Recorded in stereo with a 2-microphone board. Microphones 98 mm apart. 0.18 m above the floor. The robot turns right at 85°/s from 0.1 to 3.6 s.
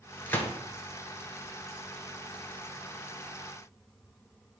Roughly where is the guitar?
No guitar in this recording.